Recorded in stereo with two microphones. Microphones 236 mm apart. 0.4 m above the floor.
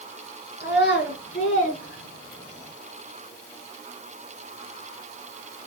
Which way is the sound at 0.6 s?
45° left (ahead or behind).